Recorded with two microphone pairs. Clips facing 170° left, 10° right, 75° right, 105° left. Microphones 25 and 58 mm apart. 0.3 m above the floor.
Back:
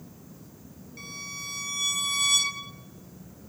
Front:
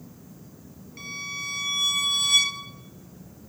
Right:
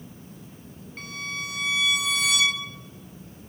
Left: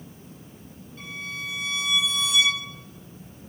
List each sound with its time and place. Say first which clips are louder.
1.0 s a violin: front 5 dB, right 1 dB; 85° right, 1.3 m